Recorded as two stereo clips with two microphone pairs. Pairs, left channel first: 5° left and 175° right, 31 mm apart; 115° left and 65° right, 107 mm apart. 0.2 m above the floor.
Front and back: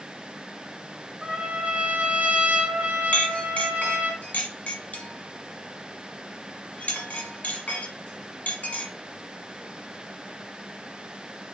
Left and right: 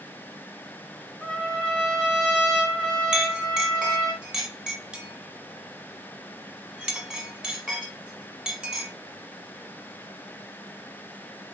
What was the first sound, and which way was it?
A trumpet, 160° right.